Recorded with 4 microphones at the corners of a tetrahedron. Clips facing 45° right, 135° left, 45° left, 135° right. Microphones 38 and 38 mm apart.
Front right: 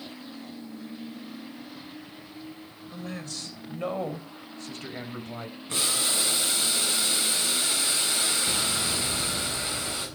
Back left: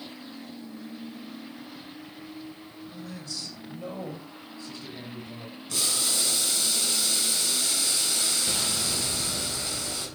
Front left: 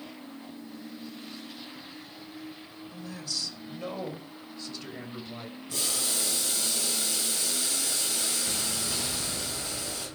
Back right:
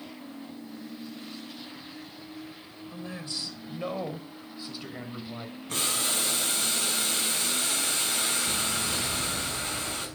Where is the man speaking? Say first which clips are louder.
Front right 4 dB, back right 1 dB; 80° right, 2.5 m; by 5.5 s 55° right, 3 m.